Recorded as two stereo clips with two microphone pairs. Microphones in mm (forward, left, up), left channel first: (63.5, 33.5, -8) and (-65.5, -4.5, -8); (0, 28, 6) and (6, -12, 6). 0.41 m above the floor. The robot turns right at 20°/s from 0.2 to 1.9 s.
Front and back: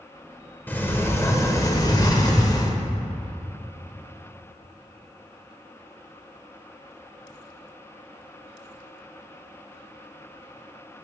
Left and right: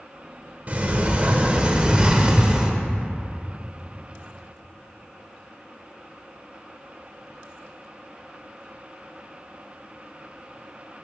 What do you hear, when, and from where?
0.7 s a sliding door: 55° right, 0.9 m; by 2.8 s 30° right, 0.9 m